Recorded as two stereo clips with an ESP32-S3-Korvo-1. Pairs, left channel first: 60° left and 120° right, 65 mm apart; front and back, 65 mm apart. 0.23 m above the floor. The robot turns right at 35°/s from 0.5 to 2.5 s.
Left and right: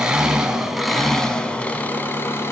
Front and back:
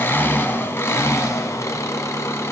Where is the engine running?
45° right, 1.0 m; by 2.5 s 25° left, 1.0 m.